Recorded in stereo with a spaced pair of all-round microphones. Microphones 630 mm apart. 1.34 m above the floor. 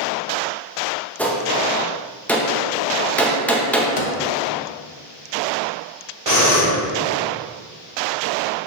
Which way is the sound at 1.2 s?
5° left (ahead or behind).